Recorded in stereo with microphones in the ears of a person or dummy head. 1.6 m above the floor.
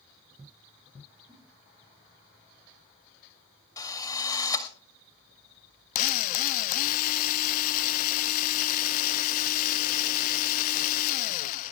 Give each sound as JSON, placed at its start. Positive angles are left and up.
{"t": 1.3, "sound": "a giggle", "side_deg": -25, "distance_m": 4.0}
{"t": 3.8, "sound": "a drill", "side_deg": 20, "distance_m": 2.0}
{"t": 6.0, "sound": "a drill", "side_deg": 45, "distance_m": 0.5}